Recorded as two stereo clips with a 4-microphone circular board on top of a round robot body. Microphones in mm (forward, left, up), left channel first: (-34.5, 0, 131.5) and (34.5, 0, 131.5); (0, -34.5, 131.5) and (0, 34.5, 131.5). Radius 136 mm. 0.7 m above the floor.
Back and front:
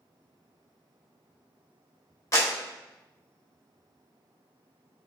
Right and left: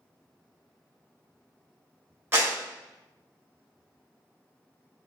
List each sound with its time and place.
2.3 s a clap: 145° left, 1.6 m